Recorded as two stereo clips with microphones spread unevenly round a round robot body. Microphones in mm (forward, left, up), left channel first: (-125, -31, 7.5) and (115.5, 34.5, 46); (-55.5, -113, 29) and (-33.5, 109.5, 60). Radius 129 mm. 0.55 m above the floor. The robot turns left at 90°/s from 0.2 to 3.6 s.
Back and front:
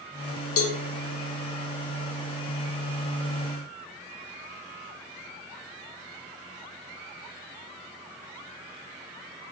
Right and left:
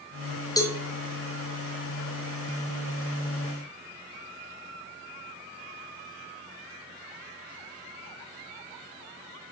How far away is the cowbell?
About 1.4 m.